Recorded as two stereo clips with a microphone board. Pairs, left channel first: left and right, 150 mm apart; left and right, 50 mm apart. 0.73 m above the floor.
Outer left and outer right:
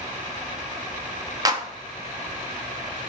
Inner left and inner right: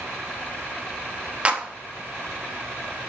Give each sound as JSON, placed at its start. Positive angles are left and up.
{"t": 1.4, "sound": "a clap", "side_deg": -25, "distance_m": 0.9}